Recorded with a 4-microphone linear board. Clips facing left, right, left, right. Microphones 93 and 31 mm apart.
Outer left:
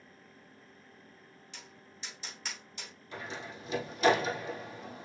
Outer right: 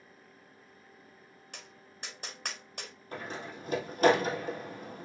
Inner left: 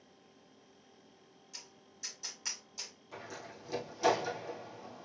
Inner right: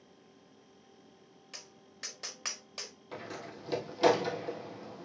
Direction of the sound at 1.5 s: 55° right (ahead or behind).